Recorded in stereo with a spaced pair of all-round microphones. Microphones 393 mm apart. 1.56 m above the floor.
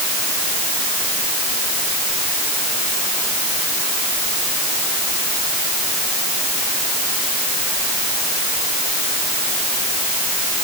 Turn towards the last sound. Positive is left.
No sound to turn to.